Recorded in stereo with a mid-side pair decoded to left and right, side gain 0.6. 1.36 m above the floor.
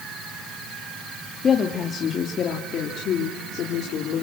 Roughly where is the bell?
I don't hear a bell.